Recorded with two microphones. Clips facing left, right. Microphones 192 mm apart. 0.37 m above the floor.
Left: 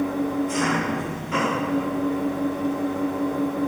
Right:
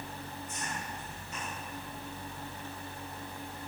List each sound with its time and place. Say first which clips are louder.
0.0 s an engine running: left 21 dB; 85° left